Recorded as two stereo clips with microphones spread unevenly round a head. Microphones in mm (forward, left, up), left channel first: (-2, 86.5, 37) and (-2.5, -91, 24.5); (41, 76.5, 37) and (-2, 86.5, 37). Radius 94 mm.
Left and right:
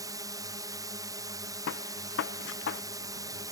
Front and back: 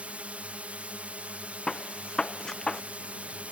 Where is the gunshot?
65° left.